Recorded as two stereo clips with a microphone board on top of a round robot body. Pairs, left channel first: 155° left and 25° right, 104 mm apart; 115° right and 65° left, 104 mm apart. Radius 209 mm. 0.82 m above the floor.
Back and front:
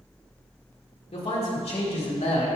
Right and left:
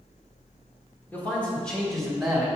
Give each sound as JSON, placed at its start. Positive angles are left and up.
{"t": 1.1, "sound": "a man speaking", "azimuth_deg": 175, "distance_m": 2.5}